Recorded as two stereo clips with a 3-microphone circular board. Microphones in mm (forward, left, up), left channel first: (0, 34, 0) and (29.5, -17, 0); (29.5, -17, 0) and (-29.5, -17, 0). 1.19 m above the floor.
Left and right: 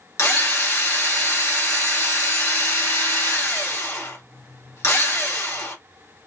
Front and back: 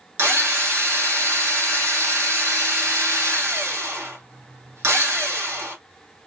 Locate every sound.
0.2 s a drill: 140° left, 1.5 m